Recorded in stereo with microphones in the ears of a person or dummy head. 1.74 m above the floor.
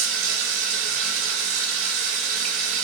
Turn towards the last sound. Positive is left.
turn(degrees=-70)  # may be behind; listen again after turning